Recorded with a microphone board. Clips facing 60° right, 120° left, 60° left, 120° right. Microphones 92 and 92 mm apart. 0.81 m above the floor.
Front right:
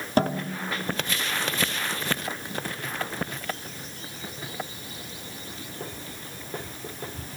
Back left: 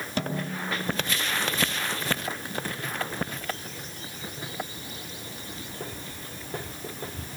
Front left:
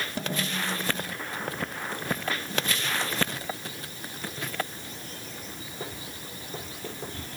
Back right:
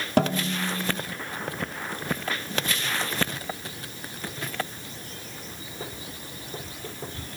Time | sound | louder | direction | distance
0.2 | a snare drum | front right 6 dB, back right 10 dB | 110° right | 4 m